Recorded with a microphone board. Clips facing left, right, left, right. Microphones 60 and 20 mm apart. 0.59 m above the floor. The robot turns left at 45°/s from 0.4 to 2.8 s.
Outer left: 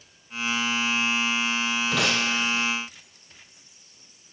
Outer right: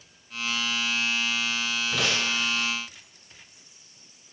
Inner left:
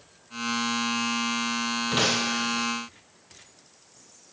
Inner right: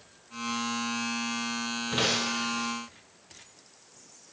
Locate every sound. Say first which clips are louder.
1.9 s breaking glass: outer left 1 dB, inner left 2 dB; 70° left, 7 m; by 2.7 s 40° left, 7 m